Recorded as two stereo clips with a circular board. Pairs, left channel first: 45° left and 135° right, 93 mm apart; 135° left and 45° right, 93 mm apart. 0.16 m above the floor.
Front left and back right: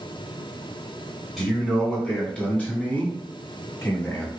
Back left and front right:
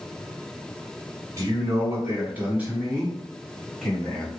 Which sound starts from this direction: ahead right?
A man speaking, at 1.4 s.